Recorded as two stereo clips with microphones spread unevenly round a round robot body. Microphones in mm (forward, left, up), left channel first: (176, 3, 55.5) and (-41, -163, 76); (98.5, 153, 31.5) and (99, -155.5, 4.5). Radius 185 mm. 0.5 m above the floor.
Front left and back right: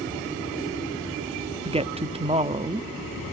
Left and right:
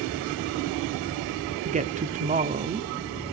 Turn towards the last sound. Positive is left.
turn(degrees=-85)